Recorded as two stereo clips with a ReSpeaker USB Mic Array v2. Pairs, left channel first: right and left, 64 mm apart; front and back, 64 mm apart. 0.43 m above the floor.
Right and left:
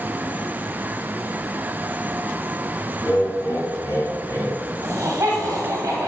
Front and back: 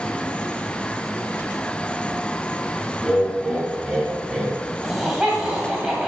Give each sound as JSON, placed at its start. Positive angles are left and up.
{"t": 3.0, "sound": "laughter", "azimuth_deg": -90, "distance_m": 2.5}
{"t": 4.8, "sound": "laughter", "azimuth_deg": 110, "distance_m": 2.0}